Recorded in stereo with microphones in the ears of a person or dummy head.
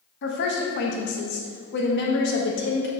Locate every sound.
0.2 s a woman speaking: 60° left (ahead or behind), 1.3 m